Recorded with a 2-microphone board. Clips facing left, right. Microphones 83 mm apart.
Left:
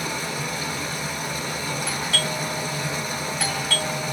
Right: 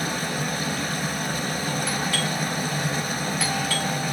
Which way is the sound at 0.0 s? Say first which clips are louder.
Right 1 dB; 50° right (ahead or behind).